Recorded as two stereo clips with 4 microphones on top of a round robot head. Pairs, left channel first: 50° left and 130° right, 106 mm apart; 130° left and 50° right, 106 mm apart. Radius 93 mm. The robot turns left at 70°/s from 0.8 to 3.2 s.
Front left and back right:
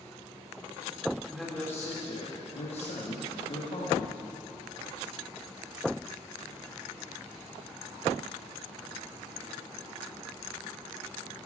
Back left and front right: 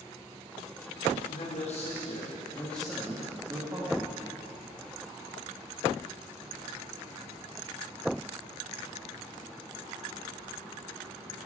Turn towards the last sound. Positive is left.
turn(degrees=15)